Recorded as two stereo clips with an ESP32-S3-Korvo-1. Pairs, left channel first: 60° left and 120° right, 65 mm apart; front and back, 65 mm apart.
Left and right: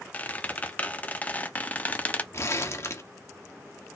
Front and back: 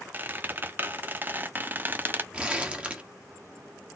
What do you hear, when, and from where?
0.1 s a squeak: 125° left, 0.9 m
2.3 s crumpling: 110° left, 1.6 m